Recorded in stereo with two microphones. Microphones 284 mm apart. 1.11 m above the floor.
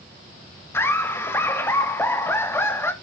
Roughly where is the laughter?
Centre.